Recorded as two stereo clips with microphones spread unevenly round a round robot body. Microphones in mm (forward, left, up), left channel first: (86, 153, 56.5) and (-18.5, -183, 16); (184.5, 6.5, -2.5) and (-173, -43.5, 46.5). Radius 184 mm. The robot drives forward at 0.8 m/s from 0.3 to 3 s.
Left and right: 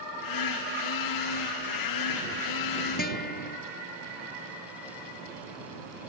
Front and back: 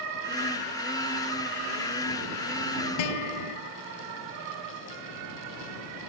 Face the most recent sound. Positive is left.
turn(degrees=10)